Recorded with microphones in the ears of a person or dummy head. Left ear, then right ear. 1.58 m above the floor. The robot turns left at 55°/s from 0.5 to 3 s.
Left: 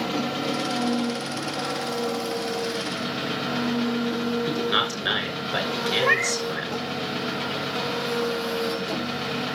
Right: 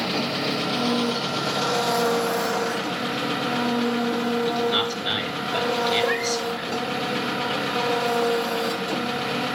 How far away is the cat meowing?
About 1.5 m.